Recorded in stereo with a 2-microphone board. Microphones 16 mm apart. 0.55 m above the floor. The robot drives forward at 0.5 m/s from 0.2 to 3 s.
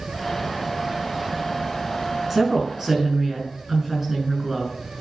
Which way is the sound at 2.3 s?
25° right (ahead or behind).